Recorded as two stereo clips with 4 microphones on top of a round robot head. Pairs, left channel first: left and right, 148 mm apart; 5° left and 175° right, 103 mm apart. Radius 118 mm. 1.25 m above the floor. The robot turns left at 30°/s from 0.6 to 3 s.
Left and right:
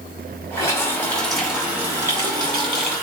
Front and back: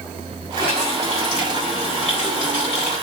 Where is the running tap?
25° left, 3.5 m; by 3.0 s 45° right, 3.5 m.